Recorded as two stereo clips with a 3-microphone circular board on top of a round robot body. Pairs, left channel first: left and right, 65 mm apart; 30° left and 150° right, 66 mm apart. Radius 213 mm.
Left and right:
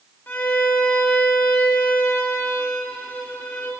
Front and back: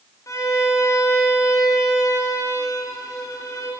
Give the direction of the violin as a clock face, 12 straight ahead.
11 o'clock.